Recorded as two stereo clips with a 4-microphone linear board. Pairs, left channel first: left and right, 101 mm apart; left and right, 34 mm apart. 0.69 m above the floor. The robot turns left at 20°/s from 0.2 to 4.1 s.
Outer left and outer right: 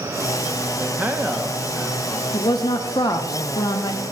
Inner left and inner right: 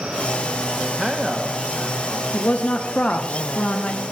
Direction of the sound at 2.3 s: 110° left.